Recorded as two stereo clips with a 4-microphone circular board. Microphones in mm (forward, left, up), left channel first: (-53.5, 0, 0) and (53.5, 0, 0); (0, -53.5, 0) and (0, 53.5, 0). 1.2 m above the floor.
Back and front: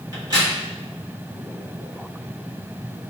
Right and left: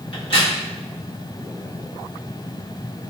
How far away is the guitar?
No guitar in this recording.